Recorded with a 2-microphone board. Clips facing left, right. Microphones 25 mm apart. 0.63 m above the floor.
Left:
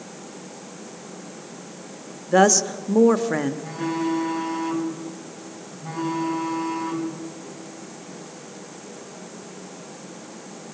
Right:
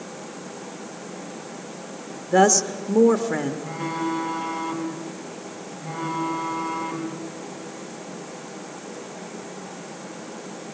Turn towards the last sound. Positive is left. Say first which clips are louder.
# left 2 dB
turn(degrees=40)  # may be behind; listen again after turning